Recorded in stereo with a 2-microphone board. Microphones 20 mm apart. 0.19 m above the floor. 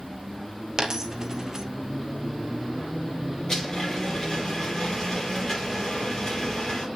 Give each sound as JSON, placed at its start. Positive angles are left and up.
{"t": 0.8, "sound": "a dropped coin", "side_deg": -30, "distance_m": 1.1}
{"t": 3.5, "sound": "a blender", "side_deg": 35, "distance_m": 5.5}